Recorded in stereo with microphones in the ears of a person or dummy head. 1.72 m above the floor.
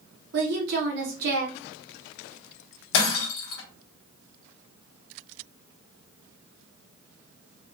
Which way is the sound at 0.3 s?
55° right (ahead or behind).